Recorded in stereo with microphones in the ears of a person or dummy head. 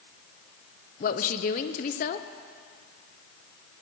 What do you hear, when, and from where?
1.0 s a woman speaking: 35° left (ahead or behind), 0.6 m